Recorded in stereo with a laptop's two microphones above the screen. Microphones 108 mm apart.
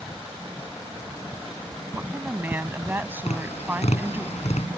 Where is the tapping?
90° left.